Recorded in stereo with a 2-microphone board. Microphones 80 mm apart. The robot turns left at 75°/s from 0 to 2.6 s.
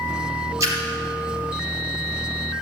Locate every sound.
0.6 s a splash: 40° right (ahead or behind), 3 m; by 0.8 s 55° right (ahead or behind), 3 m